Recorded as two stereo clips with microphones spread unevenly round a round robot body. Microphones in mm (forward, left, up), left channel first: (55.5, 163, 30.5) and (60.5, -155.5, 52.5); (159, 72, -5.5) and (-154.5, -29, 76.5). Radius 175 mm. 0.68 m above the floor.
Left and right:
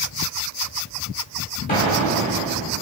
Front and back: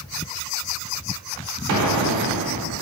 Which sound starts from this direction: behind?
An explosion, at 1.7 s.